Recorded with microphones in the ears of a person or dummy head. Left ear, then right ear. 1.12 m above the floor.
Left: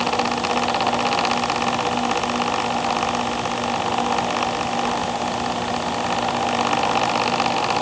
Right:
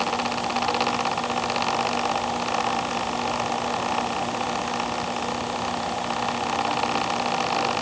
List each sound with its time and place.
Only background noise.